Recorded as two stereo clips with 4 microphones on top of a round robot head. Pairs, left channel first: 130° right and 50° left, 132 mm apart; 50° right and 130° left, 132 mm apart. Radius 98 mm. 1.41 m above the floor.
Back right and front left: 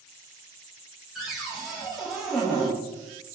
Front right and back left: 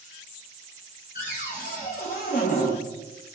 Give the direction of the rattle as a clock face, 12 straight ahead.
I don't hear a rattle.